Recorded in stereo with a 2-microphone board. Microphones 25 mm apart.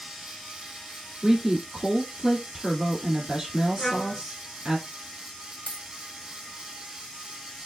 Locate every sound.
1.2 s a woman speaking: 25° right (ahead or behind), 1.4 m
3.8 s a trumpet: 30° left (ahead or behind), 1.7 m
5.7 s a dropped coin: 75° left (ahead or behind), 1.3 m